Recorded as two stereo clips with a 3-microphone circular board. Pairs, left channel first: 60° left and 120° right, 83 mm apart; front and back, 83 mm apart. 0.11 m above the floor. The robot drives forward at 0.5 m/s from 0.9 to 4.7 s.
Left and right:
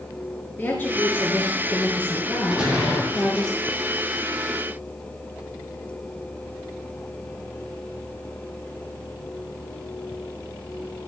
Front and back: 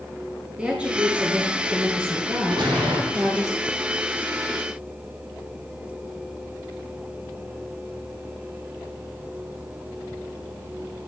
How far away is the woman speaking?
About 1.8 m.